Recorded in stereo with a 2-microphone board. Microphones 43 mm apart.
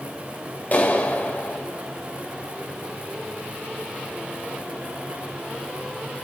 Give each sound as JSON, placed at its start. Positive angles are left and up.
{"t": 0.7, "sound": "a clap", "side_deg": 40, "distance_m": 6.0}